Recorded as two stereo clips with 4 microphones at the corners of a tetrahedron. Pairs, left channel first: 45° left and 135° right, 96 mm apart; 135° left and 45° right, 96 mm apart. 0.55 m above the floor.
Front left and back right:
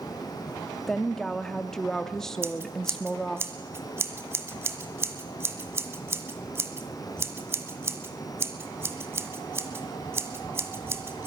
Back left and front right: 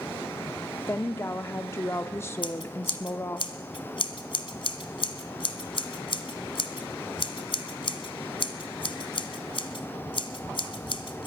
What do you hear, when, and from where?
0.9 s a woman speaking: 125° left, 0.6 m
2.4 s scissors: 160° left, 1.4 m